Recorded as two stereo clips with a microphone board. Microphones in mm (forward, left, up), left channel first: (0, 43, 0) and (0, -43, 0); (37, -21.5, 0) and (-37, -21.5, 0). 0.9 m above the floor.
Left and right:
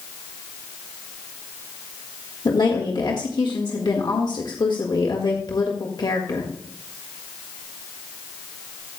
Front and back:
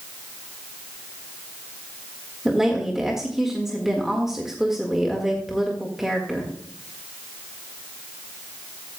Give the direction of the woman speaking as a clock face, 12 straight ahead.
9 o'clock.